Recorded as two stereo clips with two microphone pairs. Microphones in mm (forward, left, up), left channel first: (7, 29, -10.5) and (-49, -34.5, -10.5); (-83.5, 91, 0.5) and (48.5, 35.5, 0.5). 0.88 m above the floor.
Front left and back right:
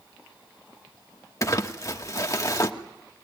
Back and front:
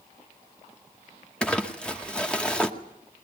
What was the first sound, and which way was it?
Crumpling, 80° left.